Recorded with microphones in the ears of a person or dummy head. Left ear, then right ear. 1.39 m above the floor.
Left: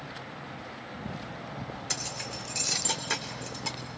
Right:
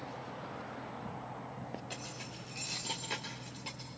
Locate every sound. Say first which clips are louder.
1.9 s keys jangling: left 10 dB; 55° left (ahead or behind), 2.5 m; by 3.8 s 45° left (ahead or behind), 3 m